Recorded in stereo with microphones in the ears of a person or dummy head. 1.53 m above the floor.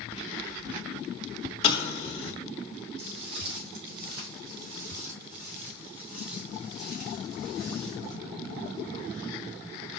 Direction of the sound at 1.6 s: 30° left (ahead or behind).